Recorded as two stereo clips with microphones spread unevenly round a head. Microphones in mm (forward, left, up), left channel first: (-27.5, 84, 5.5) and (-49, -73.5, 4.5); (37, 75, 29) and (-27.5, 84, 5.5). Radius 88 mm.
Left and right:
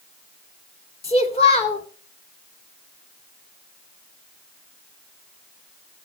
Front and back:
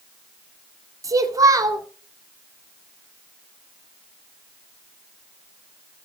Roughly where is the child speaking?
Behind left.